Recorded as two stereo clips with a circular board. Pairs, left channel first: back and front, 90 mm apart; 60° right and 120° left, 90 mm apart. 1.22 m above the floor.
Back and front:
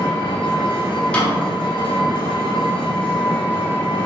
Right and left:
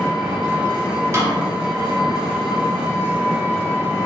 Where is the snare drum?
115° left, 0.7 m.